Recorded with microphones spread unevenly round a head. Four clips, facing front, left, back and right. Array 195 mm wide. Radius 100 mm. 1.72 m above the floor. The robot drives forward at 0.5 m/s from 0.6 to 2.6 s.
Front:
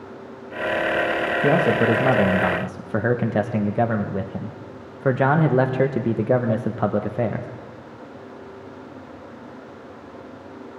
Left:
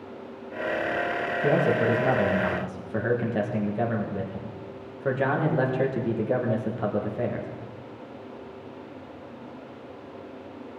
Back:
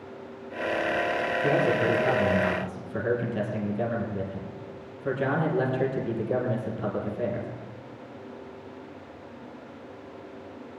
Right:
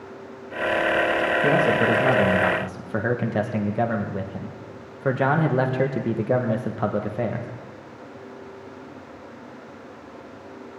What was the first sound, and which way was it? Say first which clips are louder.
A man speaking: right 1 dB, front 6 dB; 10° right.